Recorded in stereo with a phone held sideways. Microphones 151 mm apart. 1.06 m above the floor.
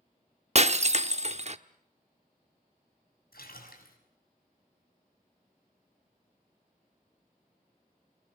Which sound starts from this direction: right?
Breaking glass, at 0.6 s.